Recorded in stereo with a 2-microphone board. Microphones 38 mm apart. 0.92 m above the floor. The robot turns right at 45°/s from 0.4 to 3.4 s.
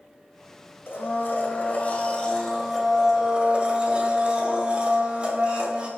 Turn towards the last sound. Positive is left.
turn(degrees=-150)